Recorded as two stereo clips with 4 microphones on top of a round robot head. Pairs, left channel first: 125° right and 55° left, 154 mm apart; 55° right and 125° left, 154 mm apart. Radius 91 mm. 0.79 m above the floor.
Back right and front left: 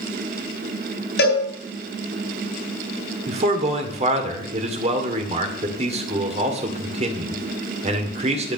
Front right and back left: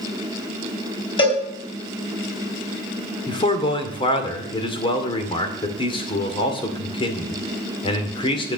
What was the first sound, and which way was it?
A cowbell, 110° right.